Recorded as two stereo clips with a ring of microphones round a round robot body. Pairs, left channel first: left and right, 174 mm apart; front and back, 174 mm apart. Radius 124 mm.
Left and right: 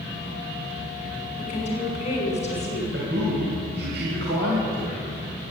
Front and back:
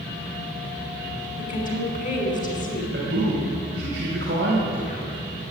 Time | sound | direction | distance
1.4 | a woman speaking | 40° left | 6 m
2.9 | a man speaking | 135° right | 3.5 m